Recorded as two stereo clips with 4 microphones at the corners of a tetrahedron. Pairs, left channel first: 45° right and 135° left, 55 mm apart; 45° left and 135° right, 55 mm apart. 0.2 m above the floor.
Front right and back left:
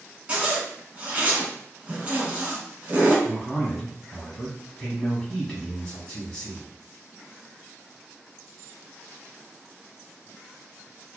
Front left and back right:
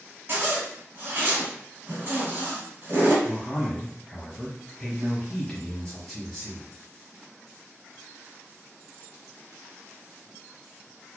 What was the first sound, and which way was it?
A zipper, 165° right.